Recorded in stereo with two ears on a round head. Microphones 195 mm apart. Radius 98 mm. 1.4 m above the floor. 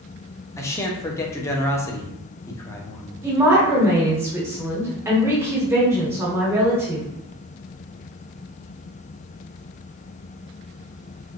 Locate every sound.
0.6 s a man speaking: 15° left (ahead or behind), 0.5 m
3.2 s a woman speaking: 10° right (ahead or behind), 1.2 m